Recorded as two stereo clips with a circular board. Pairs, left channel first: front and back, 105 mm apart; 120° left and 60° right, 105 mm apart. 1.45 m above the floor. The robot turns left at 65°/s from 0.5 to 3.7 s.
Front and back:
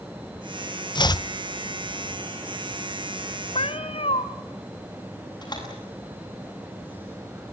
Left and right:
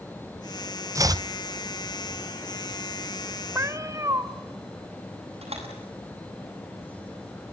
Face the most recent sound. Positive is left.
turn(degrees=-45)